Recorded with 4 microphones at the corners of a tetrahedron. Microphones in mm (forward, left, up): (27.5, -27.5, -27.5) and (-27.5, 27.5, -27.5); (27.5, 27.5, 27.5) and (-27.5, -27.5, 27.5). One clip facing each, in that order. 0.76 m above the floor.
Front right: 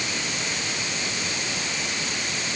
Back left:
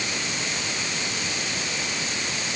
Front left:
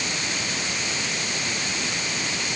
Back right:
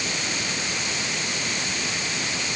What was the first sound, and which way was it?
Only background noise.